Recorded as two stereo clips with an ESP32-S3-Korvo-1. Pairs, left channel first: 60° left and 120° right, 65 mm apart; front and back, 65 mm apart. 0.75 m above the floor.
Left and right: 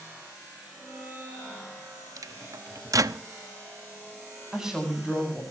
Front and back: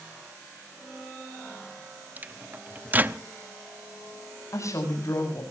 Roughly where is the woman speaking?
Ahead right.